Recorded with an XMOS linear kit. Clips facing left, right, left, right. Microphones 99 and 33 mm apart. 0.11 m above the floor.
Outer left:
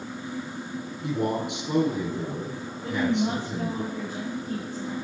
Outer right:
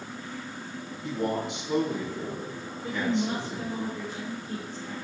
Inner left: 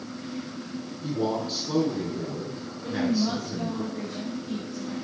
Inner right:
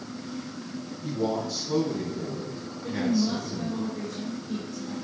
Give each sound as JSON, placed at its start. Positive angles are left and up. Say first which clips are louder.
{"t": 1.0, "sound": "a man speaking", "louder": "outer left 2 dB, inner left 1 dB", "side_deg": 65, "distance_m": 3.5}
{"t": 2.8, "sound": "a woman speaking", "louder": "outer left 3 dB, even", "side_deg": 60, "distance_m": 3.5}